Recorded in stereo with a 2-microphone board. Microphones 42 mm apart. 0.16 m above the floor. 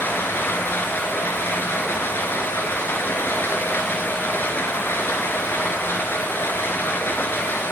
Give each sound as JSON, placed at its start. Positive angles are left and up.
{"t": 0.0, "sound": "running water", "side_deg": 60, "distance_m": 2.0}